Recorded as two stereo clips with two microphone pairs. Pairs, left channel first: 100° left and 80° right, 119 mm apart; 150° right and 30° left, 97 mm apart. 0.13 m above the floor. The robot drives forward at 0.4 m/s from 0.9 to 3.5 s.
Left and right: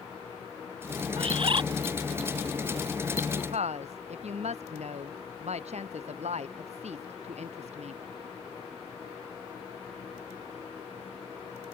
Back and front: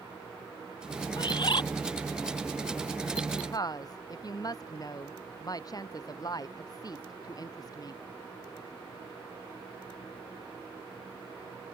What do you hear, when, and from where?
1.2 s a bird: 110° right; by 1.6 s 120° right
3.3 s a woman speaking: 100° right